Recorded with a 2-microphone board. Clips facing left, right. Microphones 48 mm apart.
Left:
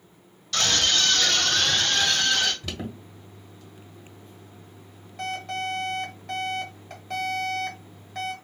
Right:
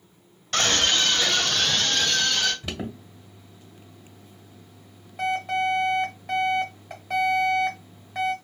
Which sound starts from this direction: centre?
An alarm, at 2.6 s.